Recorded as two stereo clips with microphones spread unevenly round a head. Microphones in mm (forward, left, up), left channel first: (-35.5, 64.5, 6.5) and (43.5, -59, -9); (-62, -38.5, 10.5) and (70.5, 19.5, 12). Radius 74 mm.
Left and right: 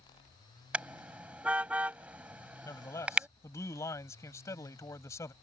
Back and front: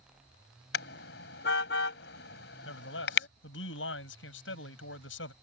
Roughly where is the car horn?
Behind right.